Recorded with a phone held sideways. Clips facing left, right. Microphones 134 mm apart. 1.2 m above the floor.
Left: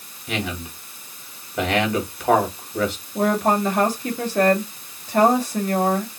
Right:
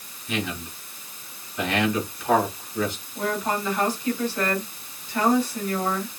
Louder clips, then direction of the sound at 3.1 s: Left 7 dB; 80° left.